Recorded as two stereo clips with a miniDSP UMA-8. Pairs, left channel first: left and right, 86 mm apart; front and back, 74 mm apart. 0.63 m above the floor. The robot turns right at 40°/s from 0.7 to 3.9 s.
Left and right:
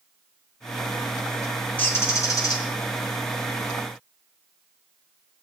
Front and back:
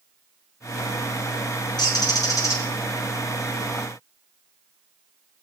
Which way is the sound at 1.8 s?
20° left.